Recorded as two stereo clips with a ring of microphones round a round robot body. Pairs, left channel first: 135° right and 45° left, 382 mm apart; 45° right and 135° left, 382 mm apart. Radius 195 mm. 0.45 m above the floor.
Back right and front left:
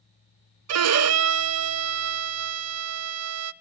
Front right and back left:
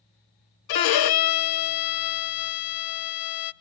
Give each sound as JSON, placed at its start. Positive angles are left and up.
{"t": 0.7, "sound": "a violin", "azimuth_deg": -10, "distance_m": 0.8}